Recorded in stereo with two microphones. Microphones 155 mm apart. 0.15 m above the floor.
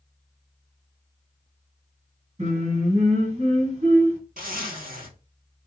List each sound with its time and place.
2.4 s singing: 45° right (ahead or behind), 2 m
4.4 s a zipper: 70° right (ahead or behind), 1.3 m